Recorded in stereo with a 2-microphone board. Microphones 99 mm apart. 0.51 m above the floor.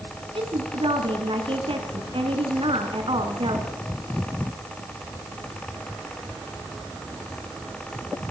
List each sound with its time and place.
0.3 s a woman speaking: 65° right (ahead or behind), 5 m